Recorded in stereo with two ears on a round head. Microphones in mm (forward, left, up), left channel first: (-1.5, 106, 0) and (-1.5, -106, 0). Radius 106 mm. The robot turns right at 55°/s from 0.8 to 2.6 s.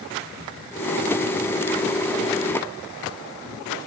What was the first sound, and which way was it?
Only background noise.